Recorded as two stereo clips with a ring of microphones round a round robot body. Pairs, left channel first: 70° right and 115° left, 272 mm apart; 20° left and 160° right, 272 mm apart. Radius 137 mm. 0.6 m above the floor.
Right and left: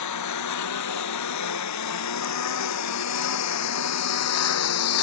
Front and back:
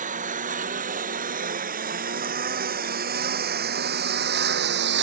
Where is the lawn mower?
95° right; by 5.0 s 105° right.